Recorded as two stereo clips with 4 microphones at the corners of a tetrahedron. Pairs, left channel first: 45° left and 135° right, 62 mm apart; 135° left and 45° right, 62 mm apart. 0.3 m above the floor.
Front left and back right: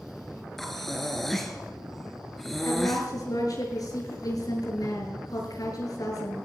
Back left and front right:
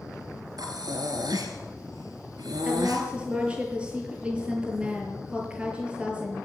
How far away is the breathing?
About 3.5 m.